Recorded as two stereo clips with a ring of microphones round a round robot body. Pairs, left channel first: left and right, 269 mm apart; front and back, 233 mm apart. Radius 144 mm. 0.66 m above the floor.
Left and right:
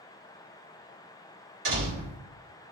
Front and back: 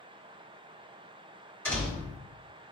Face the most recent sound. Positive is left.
turn(degrees=-80)